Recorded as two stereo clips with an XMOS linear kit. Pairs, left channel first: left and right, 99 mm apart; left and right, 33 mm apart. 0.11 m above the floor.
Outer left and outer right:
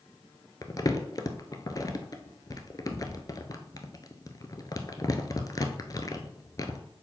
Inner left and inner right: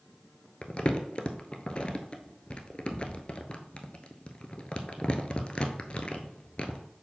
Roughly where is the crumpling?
Left.